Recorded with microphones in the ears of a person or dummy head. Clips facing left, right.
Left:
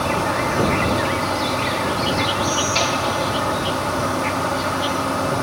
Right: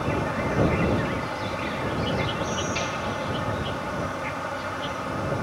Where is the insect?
75° left (ahead or behind).